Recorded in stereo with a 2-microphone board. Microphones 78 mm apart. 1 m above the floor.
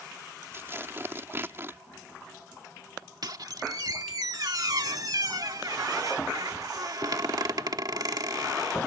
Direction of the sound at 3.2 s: 60° right (ahead or behind).